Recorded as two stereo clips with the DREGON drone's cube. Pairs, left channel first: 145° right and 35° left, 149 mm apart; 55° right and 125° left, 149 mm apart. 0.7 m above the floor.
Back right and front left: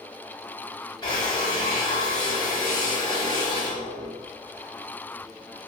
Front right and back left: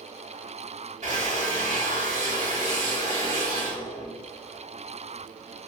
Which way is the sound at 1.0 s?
155° left.